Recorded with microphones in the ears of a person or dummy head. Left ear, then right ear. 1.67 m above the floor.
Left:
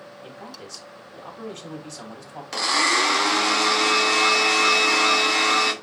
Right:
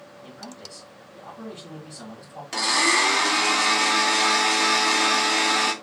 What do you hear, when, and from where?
0.2 s a man speaking: 70° left (ahead or behind), 2.0 m
2.5 s a blender: 15° left (ahead or behind), 1.0 m